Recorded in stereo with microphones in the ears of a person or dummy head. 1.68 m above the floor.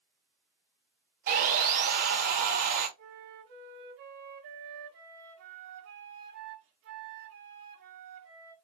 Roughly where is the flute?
Right.